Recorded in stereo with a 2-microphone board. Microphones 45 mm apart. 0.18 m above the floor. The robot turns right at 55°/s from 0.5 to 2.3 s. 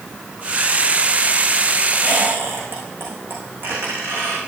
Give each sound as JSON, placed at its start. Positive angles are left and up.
{"t": 2.0, "sound": "a squeak", "side_deg": -30, "distance_m": 7.0}